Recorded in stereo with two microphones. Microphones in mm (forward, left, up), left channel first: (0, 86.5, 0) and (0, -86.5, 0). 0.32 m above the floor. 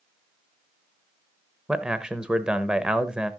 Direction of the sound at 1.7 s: 5° right (ahead or behind).